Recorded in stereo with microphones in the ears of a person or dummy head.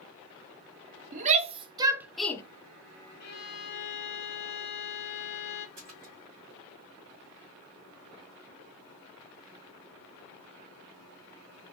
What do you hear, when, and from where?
1.1 s a shout: 40° right (ahead or behind), 1.0 m; by 2.4 s 20° left (ahead or behind), 0.6 m
3.2 s a violin: 50° left (ahead or behind), 0.7 m
5.8 s a splash: 40° right (ahead or behind), 1.4 m